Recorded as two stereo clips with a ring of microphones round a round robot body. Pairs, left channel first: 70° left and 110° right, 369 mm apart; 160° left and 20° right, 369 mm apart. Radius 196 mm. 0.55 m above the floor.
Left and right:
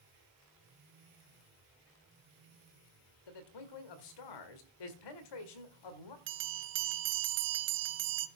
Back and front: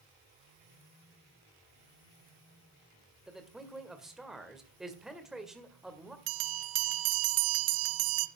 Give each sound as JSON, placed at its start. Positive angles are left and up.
{"t": 3.3, "sound": "a man speaking", "azimuth_deg": 65, "distance_m": 2.0}
{"t": 6.3, "sound": "a bell", "azimuth_deg": -55, "distance_m": 0.6}